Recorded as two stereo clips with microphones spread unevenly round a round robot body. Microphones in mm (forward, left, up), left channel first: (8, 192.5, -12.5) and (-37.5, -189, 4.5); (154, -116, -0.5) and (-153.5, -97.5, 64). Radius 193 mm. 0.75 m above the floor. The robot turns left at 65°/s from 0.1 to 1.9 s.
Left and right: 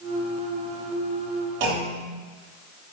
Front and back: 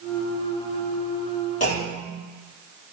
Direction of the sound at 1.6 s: 65° right.